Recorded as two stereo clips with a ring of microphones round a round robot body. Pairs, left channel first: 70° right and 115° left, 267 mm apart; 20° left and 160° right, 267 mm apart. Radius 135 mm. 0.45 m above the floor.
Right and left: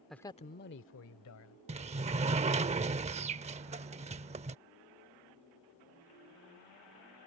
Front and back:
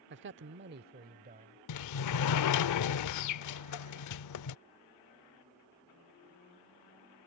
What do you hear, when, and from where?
0.1 s a man speaking: 160° right; by 1.6 s 95° right
1.7 s a sliding door: 45° left